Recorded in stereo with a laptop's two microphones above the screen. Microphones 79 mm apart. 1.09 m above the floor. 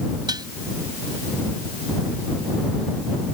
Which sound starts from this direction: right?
Dishes clattering, at 0.3 s.